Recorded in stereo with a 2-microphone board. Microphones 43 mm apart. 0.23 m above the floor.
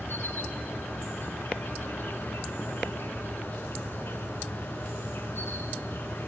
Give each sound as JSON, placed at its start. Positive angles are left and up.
{"t": 0.0, "sound": "an insect", "side_deg": 70, "distance_m": 1.0}